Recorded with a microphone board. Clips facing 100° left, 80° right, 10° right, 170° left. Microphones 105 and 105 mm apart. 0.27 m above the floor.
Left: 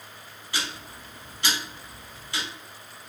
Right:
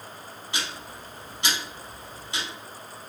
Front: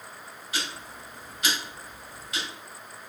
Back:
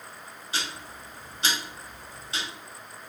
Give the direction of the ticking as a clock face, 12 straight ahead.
5 o'clock.